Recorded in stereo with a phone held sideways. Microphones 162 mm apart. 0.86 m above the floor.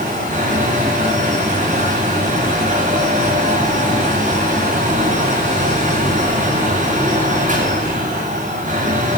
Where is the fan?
55° right (ahead or behind), 10 m.